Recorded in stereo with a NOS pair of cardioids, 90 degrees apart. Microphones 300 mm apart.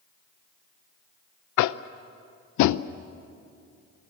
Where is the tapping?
70° left, 0.7 m.